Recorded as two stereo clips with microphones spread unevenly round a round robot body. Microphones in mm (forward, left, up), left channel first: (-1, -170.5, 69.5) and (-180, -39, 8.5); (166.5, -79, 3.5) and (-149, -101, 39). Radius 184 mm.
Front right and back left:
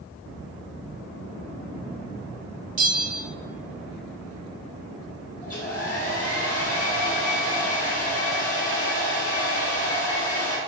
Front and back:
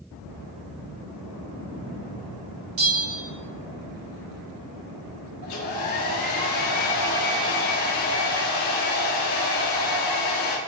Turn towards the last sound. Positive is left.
turn(degrees=50)